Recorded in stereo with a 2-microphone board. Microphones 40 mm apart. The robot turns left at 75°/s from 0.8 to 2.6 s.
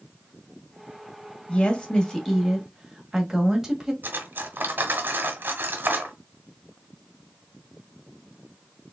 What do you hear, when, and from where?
1.5 s a woman speaking: 70° left, 1.4 m; by 3.9 s 15° right, 1.4 m
4.0 s cutlery clinking: 55° right (ahead or behind), 1.0 m